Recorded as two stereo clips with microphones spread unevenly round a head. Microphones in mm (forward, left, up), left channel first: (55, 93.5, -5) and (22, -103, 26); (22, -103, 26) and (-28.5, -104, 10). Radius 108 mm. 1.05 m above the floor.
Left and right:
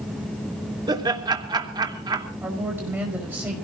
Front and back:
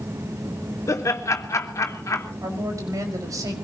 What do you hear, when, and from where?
0.9 s laughter: 25° right, 3 m
2.4 s a woman speaking: straight behind, 5.5 m